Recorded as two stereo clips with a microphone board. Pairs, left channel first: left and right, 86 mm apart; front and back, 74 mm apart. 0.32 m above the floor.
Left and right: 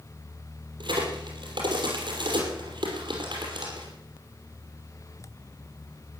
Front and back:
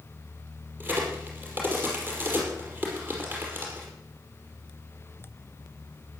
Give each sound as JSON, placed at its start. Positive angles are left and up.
{"t": 0.8, "sound": "a crack", "azimuth_deg": -115, "distance_m": 5.5}